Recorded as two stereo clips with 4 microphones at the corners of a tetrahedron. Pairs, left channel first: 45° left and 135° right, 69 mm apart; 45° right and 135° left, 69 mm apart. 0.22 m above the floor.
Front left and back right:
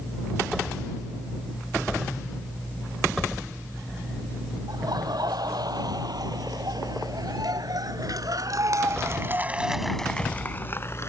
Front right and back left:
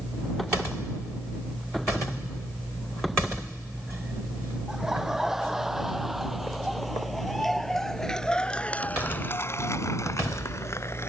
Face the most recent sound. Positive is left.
turn(degrees=0)